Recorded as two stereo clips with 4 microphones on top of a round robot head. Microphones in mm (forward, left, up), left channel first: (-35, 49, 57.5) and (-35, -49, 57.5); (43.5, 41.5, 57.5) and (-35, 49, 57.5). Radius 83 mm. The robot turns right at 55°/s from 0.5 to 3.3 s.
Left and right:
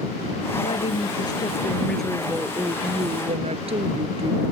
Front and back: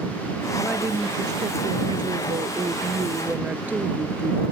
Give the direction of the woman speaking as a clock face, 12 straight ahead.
9 o'clock.